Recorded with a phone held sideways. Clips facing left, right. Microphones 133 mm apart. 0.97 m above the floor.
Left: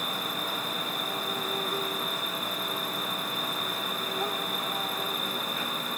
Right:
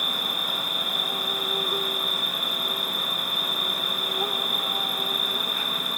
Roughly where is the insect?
Centre.